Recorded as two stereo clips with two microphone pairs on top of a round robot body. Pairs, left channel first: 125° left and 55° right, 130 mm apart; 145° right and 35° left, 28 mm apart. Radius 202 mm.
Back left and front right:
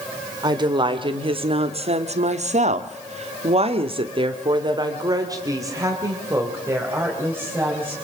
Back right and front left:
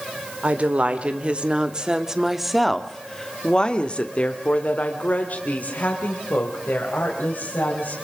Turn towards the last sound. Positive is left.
turn(degrees=-130)